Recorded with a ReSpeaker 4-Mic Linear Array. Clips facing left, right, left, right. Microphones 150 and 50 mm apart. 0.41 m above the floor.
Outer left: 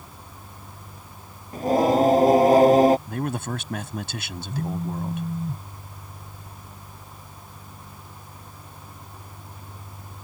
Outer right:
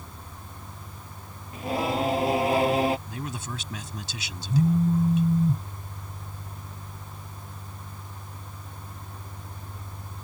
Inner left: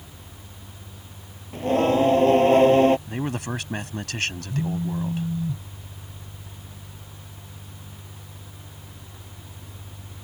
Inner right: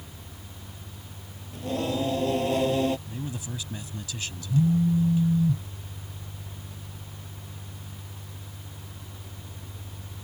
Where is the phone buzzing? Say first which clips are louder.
Outer right 7 dB, inner right 9 dB; 30° right (ahead or behind).